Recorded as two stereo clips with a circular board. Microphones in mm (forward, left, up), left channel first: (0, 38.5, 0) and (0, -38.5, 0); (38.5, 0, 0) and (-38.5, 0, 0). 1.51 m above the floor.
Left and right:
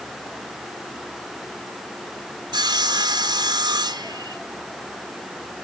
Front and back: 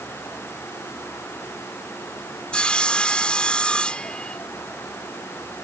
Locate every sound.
2.5 s sawing: 75° right